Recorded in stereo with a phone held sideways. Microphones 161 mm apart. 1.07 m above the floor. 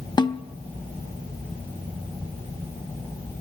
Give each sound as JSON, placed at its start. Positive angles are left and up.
{"t": 0.2, "sound": "a snare drum", "side_deg": 30, "distance_m": 0.6}